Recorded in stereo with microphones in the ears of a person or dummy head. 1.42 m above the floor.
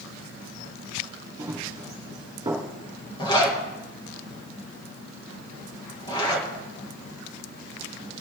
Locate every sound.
1.4 s running footsteps: 15° right (ahead or behind), 4 m
3.2 s a zipper: 20° left (ahead or behind), 1.9 m